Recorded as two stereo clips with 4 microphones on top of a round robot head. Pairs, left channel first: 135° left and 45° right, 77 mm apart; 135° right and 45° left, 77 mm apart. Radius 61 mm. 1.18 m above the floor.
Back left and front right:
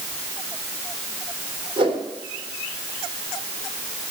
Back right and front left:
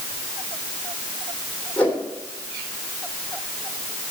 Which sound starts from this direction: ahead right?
A whoosh, at 1.8 s.